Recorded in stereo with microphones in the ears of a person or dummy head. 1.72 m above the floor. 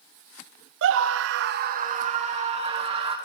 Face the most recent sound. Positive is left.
turn(degrees=-35)  # may be behind; listen again after turning